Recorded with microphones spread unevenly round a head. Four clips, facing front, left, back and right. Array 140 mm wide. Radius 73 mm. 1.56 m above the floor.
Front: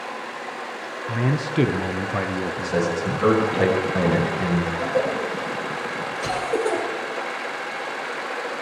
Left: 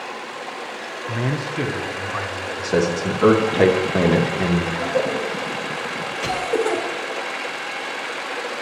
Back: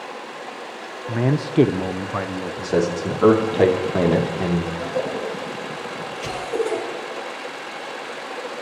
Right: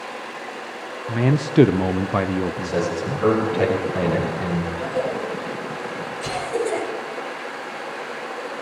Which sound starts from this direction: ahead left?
A cough, at 4.7 s.